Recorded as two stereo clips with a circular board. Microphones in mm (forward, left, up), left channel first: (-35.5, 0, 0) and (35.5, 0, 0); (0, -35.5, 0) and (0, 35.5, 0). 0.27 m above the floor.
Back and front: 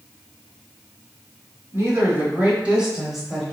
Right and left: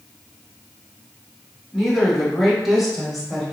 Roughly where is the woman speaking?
Ahead.